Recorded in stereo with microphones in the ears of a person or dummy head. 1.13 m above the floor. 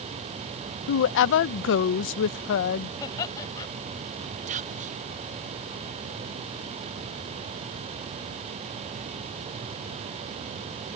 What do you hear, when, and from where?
0.9 s a woman speaking: 60° left (ahead or behind)
3.0 s laughter: 20° left (ahead or behind)
4.5 s whispering: 35° right (ahead or behind)